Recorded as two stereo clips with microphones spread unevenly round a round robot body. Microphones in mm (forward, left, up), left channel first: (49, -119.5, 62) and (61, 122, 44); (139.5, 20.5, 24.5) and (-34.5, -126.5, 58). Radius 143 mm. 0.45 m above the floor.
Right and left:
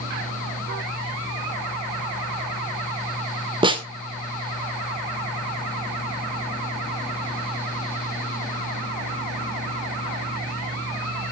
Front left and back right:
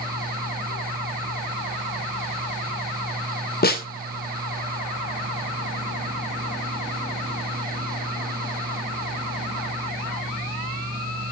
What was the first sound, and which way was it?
A snare drum, 25° left.